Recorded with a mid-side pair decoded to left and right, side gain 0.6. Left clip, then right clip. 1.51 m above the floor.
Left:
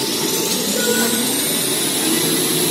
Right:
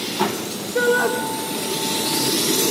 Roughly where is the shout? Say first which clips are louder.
Right 4 dB; ahead right.